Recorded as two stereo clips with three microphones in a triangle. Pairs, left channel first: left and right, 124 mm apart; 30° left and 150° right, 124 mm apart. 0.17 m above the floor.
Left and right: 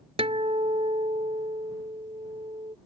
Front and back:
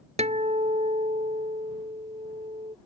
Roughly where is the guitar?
Behind right.